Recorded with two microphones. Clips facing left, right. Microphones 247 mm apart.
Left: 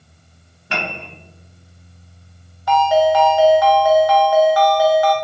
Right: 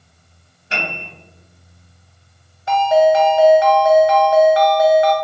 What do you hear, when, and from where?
0.7 s a piano: 65° left (ahead or behind), 0.6 m
2.7 s a ringtone: 25° right (ahead or behind), 0.6 m